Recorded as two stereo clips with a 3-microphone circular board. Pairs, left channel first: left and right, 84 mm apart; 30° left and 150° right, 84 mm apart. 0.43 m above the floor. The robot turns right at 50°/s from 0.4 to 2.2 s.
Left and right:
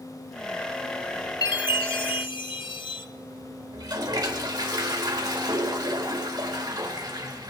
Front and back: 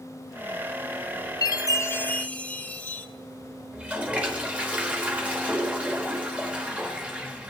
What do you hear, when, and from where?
1.4 s a chime: 65° left, 0.6 m; by 3.1 s 100° left, 0.6 m
3.7 s a toilet flushing: 80° right, 1.3 m